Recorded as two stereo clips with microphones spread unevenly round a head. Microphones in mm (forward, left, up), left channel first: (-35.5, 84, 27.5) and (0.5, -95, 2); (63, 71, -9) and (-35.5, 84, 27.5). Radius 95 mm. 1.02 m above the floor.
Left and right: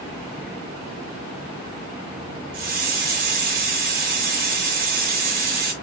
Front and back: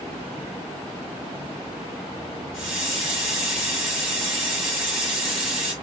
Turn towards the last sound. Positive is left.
turn(degrees=-120)